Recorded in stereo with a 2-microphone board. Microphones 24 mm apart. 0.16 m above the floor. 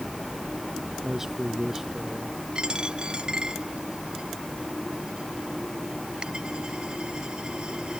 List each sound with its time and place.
1.0 s a man speaking: 20° right (ahead or behind); by 2.4 s 15° right (ahead or behind)
2.5 s a dropped coin: 40° right (ahead or behind)